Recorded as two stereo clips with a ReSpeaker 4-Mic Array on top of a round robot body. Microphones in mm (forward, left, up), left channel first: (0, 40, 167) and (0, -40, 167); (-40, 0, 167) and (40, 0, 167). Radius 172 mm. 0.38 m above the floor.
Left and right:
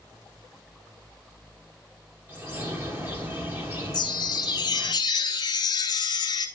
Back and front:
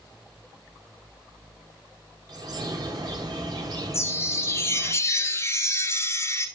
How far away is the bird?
About 3 m.